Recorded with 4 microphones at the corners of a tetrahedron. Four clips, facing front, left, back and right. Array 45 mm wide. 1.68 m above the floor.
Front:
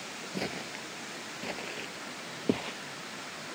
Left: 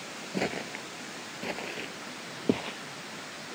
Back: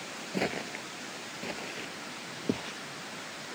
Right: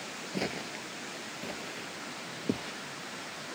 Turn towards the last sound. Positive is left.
turn(degrees=55)